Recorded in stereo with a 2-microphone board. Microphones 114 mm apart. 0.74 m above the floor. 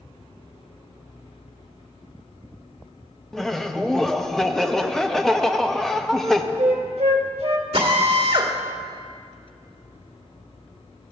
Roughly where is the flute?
Right.